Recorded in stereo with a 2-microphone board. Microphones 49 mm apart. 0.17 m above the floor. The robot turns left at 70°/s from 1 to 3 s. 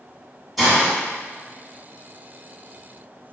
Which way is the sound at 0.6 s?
Centre (ahead or behind).